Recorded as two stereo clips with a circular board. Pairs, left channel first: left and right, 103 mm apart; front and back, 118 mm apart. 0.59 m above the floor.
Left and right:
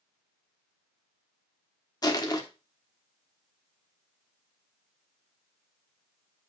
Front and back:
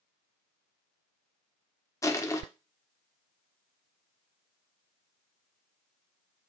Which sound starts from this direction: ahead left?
Crushing, at 2.0 s.